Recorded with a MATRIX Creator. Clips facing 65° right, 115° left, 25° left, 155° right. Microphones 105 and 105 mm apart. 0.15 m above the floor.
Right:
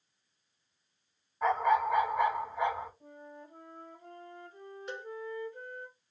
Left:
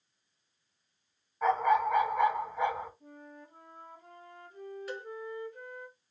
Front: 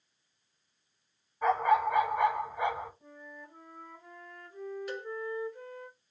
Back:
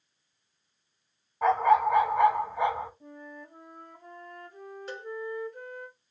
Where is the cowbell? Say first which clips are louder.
Even, front 2 dB; 120° right, 0.9 m.